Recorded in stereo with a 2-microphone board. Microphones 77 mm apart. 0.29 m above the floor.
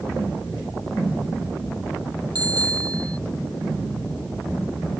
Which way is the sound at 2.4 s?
55° right (ahead or behind).